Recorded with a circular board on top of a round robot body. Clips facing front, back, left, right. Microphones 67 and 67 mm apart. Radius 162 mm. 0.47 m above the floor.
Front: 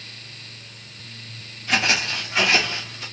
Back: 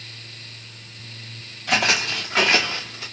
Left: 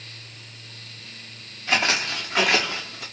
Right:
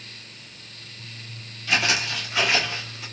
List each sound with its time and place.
1.7 s footsteps: 150° left, 1.8 m; by 3.0 s 115° left, 1.6 m